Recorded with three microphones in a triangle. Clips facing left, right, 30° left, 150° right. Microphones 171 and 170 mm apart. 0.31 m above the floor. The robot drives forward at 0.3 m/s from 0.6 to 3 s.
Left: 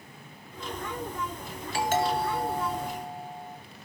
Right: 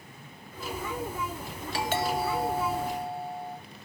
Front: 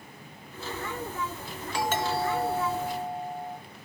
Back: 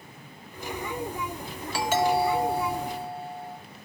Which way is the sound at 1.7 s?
130° left.